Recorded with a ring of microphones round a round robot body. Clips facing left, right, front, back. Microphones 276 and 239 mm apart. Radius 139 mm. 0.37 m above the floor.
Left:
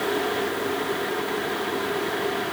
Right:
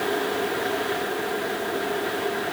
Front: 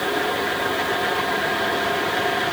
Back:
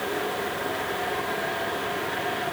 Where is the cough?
No cough in this recording.